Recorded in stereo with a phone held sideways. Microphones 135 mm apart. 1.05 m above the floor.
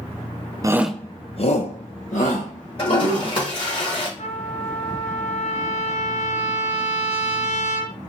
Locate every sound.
0.6 s a shout: 25° right (ahead or behind), 0.5 m; by 3.4 s 75° left (ahead or behind), 2.5 m
2.8 s a toilet flushing: 45° left (ahead or behind), 3.5 m
4.2 s a trumpet: 55° left (ahead or behind), 1.3 m